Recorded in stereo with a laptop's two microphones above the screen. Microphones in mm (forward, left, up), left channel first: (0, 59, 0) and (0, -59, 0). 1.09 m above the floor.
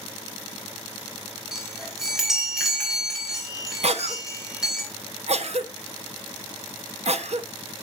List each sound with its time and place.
1.5 s a chime: centre (ahead or behind), 3 m
3.8 s a cough: 65° right (ahead or behind), 0.5 m